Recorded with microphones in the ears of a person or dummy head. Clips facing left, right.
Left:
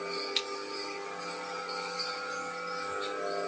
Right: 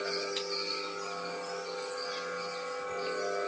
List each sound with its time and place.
0.3 s scissors: 40° left (ahead or behind), 1.8 m